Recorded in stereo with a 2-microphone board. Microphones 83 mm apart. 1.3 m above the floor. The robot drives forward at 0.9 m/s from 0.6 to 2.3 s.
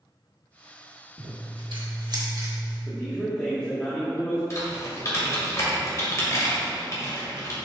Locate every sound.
1.2 s scissors: 85° right, 1.2 m; by 2.8 s 50° right (ahead or behind), 1.4 m
2.9 s a man speaking: 15° left (ahead or behind), 1.4 m
4.5 s typing on a keyboard: 40° left (ahead or behind), 1.7 m